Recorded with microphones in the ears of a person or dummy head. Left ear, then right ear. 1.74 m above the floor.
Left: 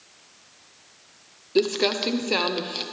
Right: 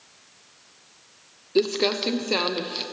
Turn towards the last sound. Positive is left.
turn(degrees=5)  # may be behind; listen again after turning